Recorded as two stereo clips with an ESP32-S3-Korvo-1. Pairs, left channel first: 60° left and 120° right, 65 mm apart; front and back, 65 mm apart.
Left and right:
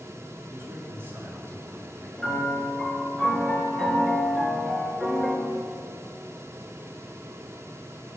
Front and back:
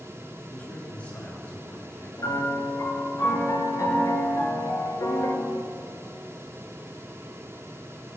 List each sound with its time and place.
0.5 s a man speaking: 70° right, 4.5 m
2.2 s a piano: 25° right, 5.5 m